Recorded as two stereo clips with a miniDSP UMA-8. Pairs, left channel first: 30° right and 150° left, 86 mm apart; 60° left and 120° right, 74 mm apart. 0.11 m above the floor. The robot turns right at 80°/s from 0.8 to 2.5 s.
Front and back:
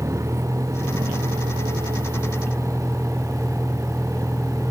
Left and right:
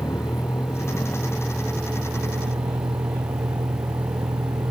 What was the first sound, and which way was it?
A vehicle, 90° left.